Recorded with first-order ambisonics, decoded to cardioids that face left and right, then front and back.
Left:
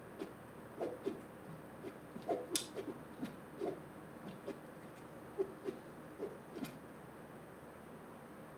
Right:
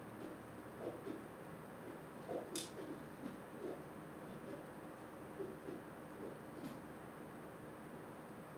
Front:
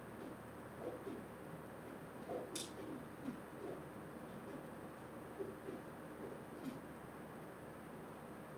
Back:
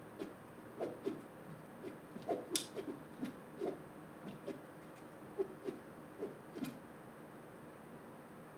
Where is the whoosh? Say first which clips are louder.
Left 5 dB, back 2 dB; 140° left, 1.6 m.